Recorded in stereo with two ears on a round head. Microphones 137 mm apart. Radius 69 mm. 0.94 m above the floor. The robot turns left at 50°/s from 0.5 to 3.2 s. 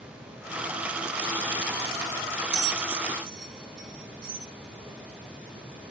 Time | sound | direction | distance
2.5 | a bell | 70° right (ahead or behind) | 4 m
4.8 | footsteps | 25° right (ahead or behind) | 4.5 m